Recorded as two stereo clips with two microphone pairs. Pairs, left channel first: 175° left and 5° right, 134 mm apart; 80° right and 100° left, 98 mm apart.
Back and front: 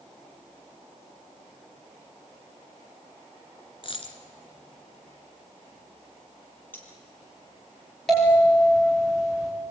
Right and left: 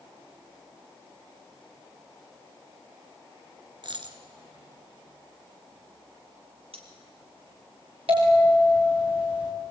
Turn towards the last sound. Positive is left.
turn(degrees=85)